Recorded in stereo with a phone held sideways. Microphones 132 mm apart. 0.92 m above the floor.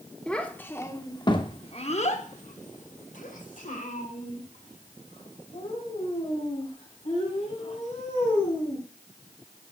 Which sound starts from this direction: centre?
A child speaking, at 0.3 s.